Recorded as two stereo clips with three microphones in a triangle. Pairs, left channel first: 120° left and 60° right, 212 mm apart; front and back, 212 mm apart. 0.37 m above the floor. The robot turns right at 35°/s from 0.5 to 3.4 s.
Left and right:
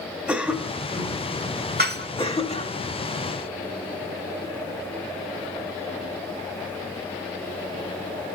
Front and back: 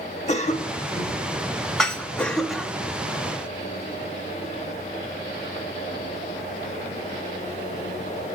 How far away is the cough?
About 1.6 m.